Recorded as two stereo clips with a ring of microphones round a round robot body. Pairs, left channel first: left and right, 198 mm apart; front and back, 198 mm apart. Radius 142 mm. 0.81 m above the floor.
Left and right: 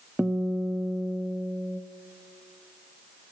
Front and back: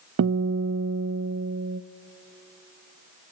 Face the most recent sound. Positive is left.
turn(degrees=-175)